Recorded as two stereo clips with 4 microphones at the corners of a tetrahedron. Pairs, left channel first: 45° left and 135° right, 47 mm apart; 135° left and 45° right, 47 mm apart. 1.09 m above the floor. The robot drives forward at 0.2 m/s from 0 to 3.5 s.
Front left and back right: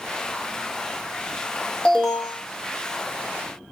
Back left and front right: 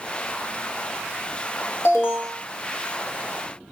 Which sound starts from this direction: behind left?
An alarm, at 1.9 s.